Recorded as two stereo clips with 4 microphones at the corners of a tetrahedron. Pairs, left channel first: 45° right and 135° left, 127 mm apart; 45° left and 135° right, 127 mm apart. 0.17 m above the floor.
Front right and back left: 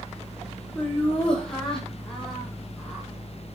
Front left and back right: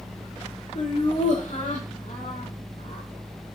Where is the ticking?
No ticking in this recording.